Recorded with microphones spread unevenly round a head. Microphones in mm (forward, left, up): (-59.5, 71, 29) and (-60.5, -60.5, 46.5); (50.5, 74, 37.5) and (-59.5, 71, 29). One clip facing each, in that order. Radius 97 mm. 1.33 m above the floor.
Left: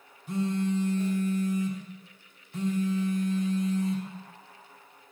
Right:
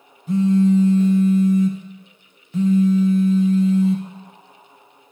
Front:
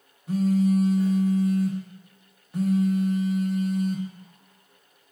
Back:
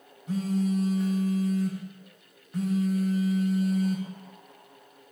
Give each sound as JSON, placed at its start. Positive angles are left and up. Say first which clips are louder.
{"t": 0.3, "sound": "a phone buzzing", "louder": "right 12 dB, front 5 dB", "azimuth_deg": -85, "distance_m": 1.2}